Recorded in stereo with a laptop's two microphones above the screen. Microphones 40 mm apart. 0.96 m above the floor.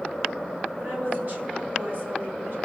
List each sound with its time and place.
0.8 s a woman speaking: 50° right (ahead or behind), 5.5 m; by 2.5 s 55° right (ahead or behind), 4 m